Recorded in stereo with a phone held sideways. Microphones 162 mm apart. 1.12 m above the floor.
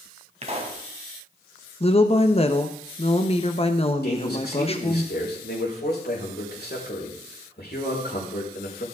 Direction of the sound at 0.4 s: 40° right (ahead or behind).